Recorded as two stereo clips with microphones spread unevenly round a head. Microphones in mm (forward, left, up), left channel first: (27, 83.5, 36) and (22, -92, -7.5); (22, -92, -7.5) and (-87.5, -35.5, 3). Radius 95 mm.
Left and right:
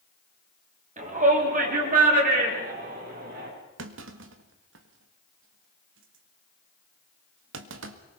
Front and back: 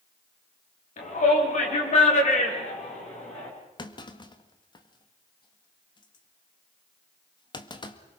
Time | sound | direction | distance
1.0 | a shout | 45° right | 4.5 m
3.8 | a clunk | 80° right | 1.6 m